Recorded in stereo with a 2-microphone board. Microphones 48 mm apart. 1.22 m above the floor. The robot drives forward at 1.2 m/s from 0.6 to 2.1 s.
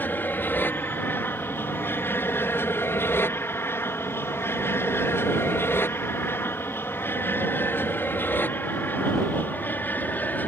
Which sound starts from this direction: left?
An aircraft, at 0.0 s.